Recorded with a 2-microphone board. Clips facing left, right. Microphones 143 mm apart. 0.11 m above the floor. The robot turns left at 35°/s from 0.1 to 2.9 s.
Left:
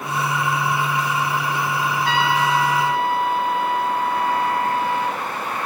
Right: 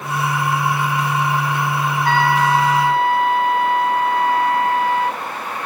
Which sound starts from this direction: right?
A trumpet, at 2.0 s.